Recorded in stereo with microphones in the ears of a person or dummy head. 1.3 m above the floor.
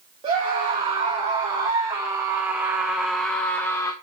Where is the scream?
25° right (ahead or behind), 2.5 m; by 3.9 s 20° left (ahead or behind), 1.1 m.